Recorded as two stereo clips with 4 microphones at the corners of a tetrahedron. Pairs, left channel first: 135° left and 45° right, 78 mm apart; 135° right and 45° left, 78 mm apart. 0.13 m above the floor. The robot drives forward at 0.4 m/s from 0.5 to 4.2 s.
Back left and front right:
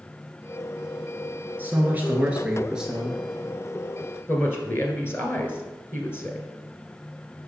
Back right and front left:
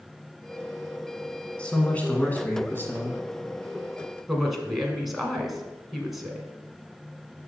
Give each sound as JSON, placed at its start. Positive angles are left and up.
{"t": 1.6, "sound": "a man speaking", "azimuth_deg": -75, "distance_m": 1.5}
{"t": 4.3, "sound": "a woman speaking", "azimuth_deg": 130, "distance_m": 1.4}